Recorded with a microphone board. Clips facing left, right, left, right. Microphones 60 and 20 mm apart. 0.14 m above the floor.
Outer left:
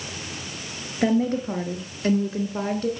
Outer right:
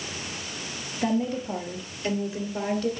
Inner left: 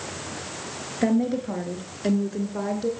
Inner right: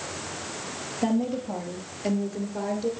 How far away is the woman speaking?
About 2.5 m.